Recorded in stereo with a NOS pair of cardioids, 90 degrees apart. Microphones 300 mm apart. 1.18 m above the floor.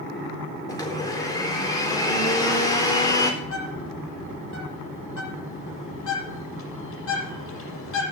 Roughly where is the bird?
Ahead left.